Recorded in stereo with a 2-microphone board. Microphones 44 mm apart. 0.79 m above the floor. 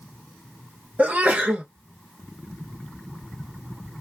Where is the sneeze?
35° right (ahead or behind), 0.8 m.